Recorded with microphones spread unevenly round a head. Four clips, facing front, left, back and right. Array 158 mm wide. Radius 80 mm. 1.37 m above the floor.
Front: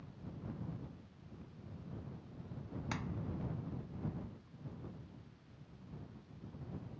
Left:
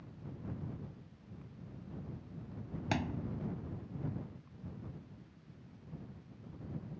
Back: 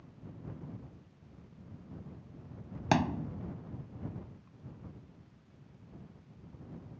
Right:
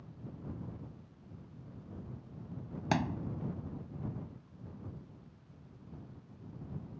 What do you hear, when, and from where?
2.9 s a thud: 170° right